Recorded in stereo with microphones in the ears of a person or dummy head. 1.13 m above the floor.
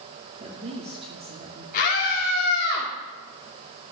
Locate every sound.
0.4 s a woman speaking: 35° right (ahead or behind), 2 m
1.7 s a scream: 45° left (ahead or behind), 2.5 m